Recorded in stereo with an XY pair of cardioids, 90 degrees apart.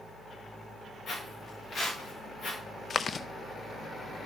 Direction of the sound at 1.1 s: 55° left.